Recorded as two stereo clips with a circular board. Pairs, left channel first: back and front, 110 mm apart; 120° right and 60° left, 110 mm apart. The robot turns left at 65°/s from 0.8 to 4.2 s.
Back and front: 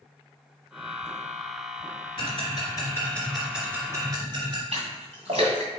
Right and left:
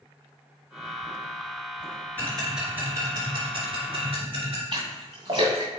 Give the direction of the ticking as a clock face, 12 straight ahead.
6 o'clock.